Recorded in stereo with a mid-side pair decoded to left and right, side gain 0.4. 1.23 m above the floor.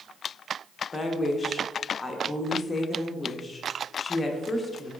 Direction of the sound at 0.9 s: 30° left.